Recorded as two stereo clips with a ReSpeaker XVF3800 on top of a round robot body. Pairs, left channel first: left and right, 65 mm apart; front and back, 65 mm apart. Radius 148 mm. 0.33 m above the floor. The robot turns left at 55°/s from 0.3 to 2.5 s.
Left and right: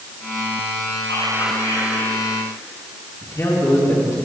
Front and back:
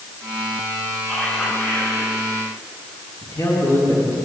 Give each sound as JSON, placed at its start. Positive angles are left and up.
{"t": 1.1, "sound": "whispering", "azimuth_deg": 95, "distance_m": 6.0}
{"t": 3.2, "sound": "a man speaking", "azimuth_deg": 50, "distance_m": 6.0}